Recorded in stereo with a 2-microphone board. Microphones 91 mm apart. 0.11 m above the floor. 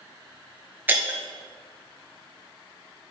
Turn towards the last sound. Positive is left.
turn(degrees=-20)  # may be behind; listen again after turning